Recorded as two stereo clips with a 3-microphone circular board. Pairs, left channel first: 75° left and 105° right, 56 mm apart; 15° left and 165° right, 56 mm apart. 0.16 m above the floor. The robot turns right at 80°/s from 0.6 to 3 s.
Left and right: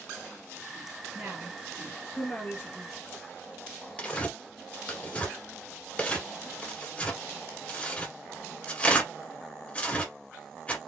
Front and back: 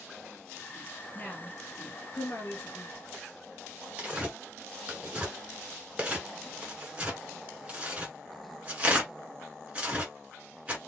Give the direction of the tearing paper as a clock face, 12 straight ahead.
7 o'clock.